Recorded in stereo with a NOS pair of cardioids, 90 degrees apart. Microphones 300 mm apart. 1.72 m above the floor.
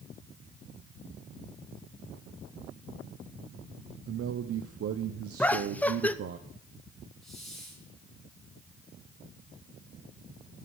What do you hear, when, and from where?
4.1 s a man speaking: 55° right, 1.1 m
5.4 s laughter: 5° left, 0.9 m
7.2 s a hiss: straight ahead, 6 m